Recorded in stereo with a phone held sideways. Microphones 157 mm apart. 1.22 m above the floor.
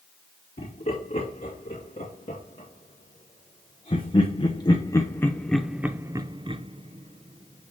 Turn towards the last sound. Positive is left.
turn(degrees=-45)  # may be behind; listen again after turning